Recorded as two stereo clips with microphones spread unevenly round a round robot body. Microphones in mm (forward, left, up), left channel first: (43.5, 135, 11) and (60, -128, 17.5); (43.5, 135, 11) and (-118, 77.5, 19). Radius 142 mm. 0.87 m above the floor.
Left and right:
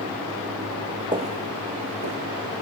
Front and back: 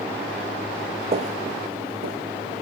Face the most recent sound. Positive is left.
turn(degrees=-125)